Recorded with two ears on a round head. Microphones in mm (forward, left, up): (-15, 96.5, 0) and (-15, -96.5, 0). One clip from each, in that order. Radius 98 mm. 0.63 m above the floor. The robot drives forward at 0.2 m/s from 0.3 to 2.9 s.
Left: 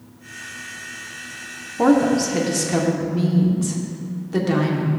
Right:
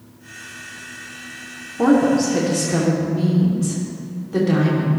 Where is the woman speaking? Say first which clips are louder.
Right 1 dB; 25° left (ahead or behind), 0.9 m; by 4.9 s 20° left (ahead or behind), 1.1 m.